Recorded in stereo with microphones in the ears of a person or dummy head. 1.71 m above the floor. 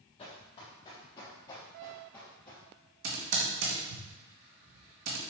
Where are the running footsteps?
30° left (ahead or behind), 3.5 m; by 2.6 s 10° left (ahead or behind), 3 m.